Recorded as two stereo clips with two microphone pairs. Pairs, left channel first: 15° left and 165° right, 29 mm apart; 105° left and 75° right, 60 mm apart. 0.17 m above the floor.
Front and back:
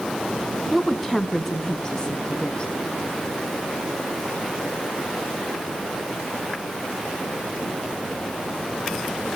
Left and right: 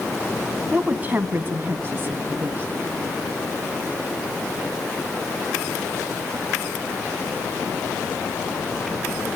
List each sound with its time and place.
0.7 s a woman speaking: 80° right, 1.5 m; by 2.7 s 30° right, 2.5 m